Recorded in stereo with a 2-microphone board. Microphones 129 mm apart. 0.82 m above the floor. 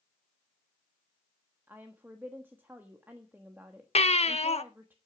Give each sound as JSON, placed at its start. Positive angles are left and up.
{"t": 1.7, "sound": "a woman speaking", "side_deg": -15, "distance_m": 1.2}
{"t": 4.0, "sound": "a baby crying", "side_deg": 55, "distance_m": 0.7}